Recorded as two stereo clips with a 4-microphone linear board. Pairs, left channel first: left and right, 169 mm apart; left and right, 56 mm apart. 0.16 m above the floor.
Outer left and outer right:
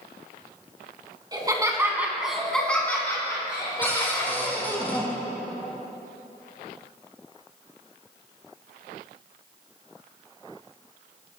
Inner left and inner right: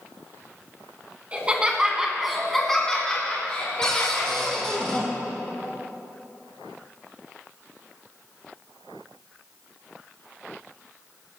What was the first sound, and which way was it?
Laughter, 25° right (ahead or behind).